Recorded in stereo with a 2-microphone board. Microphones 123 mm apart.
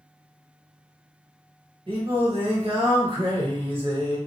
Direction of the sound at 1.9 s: 45° right (ahead or behind).